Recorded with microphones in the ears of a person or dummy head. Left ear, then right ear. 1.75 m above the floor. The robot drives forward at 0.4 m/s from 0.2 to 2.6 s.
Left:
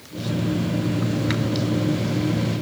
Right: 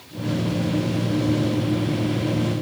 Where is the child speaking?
No child speaking in this recording.